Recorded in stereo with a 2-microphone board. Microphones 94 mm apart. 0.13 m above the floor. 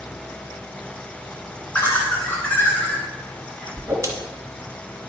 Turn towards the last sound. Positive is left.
turn(degrees=-30)  # may be behind; listen again after turning